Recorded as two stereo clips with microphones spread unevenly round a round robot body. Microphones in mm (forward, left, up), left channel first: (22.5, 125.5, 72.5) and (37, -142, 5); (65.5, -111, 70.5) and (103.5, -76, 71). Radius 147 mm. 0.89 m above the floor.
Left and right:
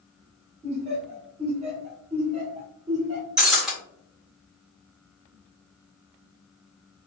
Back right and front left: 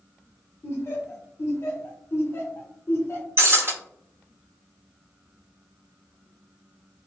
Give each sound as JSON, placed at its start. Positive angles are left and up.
{"t": 0.6, "sound": "laughter", "azimuth_deg": -130, "distance_m": 1.1}
{"t": 3.4, "sound": "breaking glass", "azimuth_deg": 5, "distance_m": 1.4}